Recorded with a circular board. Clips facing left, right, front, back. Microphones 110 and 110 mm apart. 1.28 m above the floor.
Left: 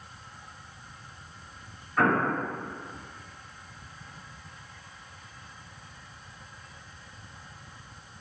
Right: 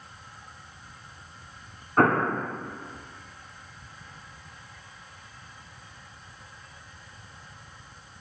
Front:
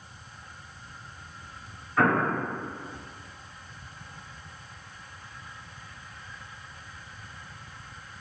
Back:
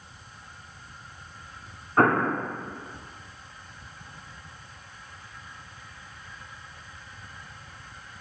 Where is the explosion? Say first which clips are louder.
Right 3 dB, back 2 dB; 130° right, 1.8 m.